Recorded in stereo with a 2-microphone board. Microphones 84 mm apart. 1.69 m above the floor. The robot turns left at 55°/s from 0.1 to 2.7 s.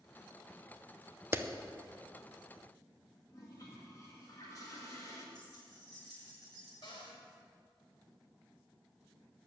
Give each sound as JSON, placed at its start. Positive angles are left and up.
{"t": 1.3, "sound": "a clap", "side_deg": -30, "distance_m": 0.7}
{"t": 3.3, "sound": "a toilet flushing", "side_deg": 40, "distance_m": 2.5}
{"t": 5.3, "sound": "keys jangling", "side_deg": 50, "distance_m": 5.5}
{"t": 6.8, "sound": "a cupboard door", "side_deg": 65, "distance_m": 3.0}